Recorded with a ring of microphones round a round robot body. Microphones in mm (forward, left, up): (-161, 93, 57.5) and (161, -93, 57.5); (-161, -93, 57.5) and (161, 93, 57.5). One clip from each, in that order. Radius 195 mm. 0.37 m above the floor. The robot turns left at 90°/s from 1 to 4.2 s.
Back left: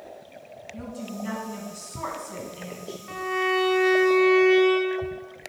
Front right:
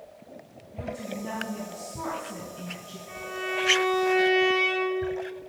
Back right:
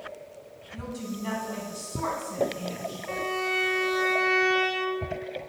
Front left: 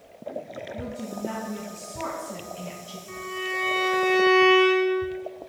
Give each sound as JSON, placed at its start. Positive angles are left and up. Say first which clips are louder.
{"t": 0.7, "sound": "a woman speaking", "louder": "front right 3 dB, back right 2 dB", "azimuth_deg": -125, "distance_m": 4.0}
{"t": 3.1, "sound": "a violin", "louder": "back left 7 dB, back right 2 dB", "azimuth_deg": 160, "distance_m": 1.7}